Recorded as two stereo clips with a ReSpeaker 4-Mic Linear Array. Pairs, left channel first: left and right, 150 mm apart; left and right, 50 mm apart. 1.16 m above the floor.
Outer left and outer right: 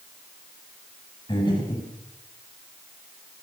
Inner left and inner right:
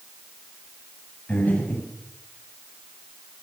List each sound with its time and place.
1.3 s breathing: 35° left (ahead or behind), 7 m